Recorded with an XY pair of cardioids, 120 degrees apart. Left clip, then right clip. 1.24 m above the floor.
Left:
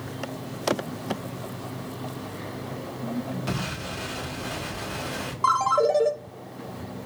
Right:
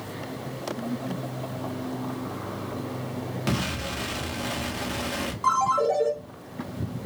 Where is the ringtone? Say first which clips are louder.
Left 1 dB; 30° left, 1.1 m.